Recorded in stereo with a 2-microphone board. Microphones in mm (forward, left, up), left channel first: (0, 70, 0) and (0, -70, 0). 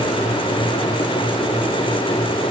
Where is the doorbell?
I don't hear a doorbell.